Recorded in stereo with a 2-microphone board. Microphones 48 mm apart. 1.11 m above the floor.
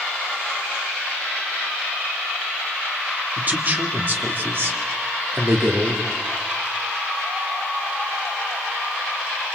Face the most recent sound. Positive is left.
turn(degrees=-60)  # may be behind; listen again after turning